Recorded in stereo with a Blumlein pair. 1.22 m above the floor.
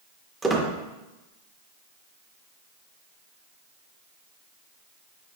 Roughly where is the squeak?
Ahead.